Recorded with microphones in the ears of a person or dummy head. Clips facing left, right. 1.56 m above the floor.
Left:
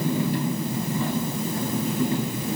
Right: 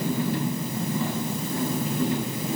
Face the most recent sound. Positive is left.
No sound to turn to.